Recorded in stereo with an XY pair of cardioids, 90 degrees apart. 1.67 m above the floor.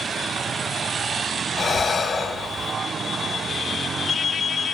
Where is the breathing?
35° left, 1.0 m.